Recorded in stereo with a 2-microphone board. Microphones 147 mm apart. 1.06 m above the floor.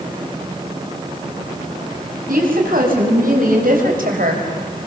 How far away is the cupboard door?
I don't hear a cupboard door.